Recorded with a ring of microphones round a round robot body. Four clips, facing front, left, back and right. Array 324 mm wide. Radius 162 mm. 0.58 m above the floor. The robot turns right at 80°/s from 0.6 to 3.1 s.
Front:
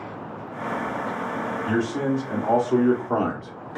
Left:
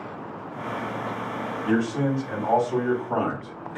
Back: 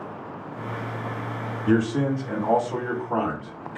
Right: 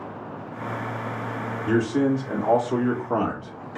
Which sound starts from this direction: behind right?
A man speaking, at 1.7 s.